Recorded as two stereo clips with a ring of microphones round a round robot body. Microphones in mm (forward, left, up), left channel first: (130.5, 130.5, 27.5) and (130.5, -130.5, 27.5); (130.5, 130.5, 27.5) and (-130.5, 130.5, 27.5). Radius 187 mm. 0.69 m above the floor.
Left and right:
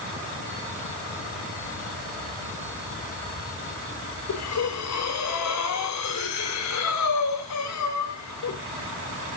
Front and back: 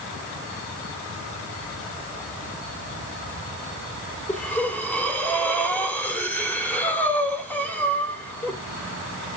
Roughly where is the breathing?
Left.